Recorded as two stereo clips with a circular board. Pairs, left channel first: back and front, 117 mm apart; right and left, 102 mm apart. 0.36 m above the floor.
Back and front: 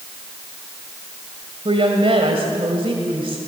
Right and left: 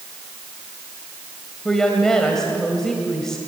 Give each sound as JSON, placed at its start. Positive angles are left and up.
{"t": 1.6, "sound": "a woman speaking", "azimuth_deg": -5, "distance_m": 2.0}